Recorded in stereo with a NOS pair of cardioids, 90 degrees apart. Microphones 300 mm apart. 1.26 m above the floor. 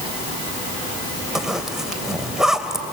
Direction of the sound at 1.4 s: Straight ahead.